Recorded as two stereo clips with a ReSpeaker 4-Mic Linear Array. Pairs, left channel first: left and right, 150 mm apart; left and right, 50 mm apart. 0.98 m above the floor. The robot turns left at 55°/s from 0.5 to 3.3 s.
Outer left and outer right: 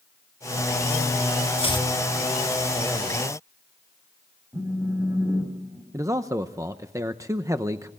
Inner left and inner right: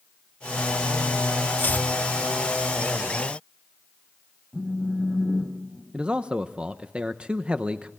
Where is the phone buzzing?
15° right (ahead or behind), 5 m.